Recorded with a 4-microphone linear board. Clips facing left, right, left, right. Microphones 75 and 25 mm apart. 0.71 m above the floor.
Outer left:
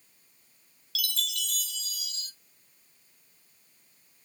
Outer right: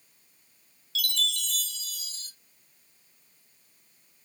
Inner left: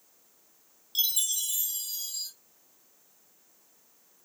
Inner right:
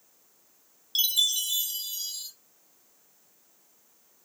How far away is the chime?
About 0.8 m.